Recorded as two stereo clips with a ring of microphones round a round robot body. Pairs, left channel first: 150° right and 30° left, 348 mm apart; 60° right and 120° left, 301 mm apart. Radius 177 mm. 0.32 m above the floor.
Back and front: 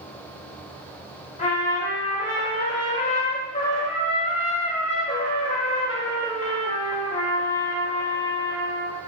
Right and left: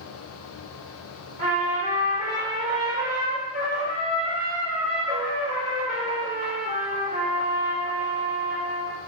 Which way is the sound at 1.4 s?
160° left.